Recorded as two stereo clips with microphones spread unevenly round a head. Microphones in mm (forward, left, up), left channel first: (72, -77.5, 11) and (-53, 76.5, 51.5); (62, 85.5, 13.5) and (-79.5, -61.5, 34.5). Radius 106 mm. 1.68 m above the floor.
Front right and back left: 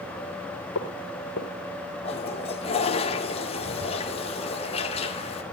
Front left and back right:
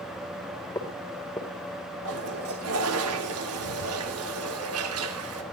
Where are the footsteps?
30° right, 2.5 m.